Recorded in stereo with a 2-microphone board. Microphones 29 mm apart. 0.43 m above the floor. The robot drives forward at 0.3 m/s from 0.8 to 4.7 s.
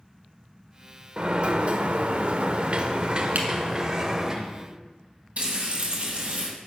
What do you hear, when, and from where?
1.2 s a sliding door: 40° right (ahead or behind), 0.5 m; by 4.3 s 25° right (ahead or behind), 0.8 m
3.4 s a camera shutter: 70° right (ahead or behind), 1.2 m
5.4 s frying: 60° right (ahead or behind), 1.9 m